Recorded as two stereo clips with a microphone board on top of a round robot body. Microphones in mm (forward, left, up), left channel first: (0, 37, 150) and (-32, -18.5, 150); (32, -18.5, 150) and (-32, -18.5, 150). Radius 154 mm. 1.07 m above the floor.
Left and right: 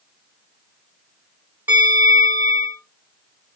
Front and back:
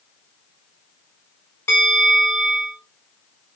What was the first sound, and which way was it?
A bell, 60° right.